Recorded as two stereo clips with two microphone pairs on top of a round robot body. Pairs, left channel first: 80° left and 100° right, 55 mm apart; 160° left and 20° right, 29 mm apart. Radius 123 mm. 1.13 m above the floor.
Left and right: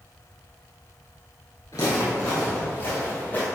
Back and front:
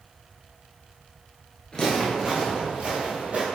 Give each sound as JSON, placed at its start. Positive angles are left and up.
{"t": 1.7, "sound": "footsteps", "azimuth_deg": 115, "distance_m": 1.3}